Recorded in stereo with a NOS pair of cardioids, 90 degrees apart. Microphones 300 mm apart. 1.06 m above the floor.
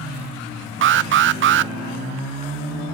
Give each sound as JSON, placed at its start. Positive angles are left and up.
{"t": 0.8, "sound": "an alarm", "azimuth_deg": -45, "distance_m": 0.5}